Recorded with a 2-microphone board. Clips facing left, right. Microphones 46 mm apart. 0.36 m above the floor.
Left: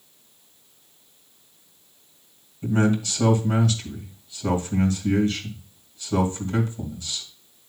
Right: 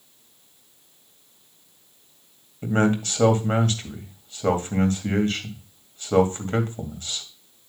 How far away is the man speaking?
About 2 m.